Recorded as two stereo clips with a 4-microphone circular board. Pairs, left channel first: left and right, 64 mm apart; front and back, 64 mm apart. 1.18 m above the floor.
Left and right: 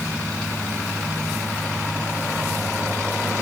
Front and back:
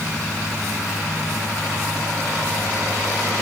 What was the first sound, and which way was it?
Only background noise.